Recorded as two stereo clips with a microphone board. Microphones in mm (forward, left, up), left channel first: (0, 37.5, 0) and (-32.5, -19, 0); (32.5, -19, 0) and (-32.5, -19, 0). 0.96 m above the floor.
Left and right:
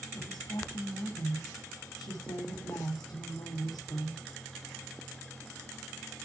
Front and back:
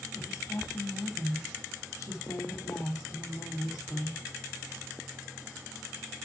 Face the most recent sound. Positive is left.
turn(degrees=40)